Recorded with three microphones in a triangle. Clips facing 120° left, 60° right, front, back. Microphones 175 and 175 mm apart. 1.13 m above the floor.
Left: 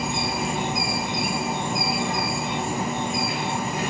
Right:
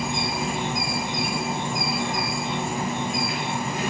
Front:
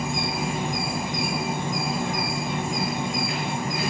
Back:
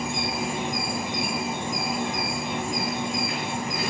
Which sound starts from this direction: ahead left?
An insect, at 0.0 s.